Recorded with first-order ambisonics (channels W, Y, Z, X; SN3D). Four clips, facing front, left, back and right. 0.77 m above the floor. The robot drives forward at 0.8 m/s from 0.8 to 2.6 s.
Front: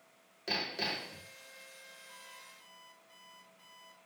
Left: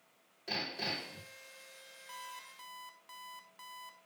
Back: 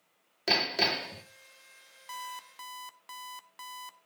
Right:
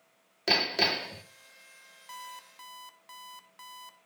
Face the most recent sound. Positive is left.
turn(degrees=-165)